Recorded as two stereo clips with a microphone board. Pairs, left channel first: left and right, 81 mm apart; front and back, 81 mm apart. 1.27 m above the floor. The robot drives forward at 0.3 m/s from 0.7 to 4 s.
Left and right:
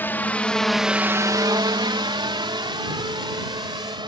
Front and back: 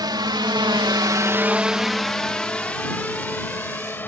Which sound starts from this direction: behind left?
A drone, at 0.0 s.